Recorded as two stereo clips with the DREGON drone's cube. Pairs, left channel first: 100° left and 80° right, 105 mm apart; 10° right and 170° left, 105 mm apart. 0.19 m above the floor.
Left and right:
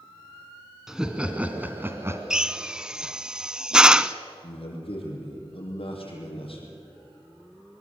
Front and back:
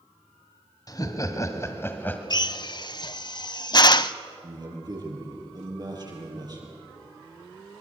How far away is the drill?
About 0.5 m.